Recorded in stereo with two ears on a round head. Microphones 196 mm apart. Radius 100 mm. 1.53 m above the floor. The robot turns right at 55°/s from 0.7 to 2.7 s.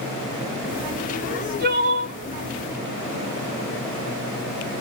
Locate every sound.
1.2 s crying: 105° right, 1.7 m; by 2.2 s 50° right, 1.7 m